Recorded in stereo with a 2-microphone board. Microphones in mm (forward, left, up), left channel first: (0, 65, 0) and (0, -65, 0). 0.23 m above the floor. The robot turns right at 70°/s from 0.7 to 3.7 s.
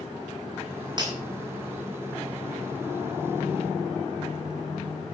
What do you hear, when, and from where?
1.0 s breaking glass: 35° right (ahead or behind), 9 m; by 1.1 s 25° right (ahead or behind), 9 m